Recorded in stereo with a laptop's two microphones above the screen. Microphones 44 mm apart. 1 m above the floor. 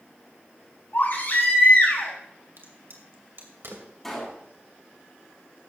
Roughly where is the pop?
Centre.